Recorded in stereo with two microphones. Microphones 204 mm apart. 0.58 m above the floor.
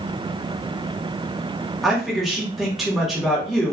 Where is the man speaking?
Centre (ahead or behind), 1.0 m.